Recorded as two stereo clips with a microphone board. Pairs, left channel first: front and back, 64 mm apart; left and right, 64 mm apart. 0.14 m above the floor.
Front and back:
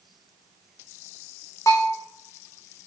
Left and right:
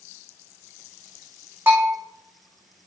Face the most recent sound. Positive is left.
turn(degrees=-35)